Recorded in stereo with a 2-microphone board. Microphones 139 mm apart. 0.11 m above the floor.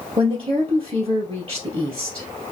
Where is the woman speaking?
45° right (ahead or behind), 2.5 m.